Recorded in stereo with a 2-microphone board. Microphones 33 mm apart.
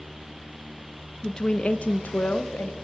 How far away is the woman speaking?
About 0.7 m.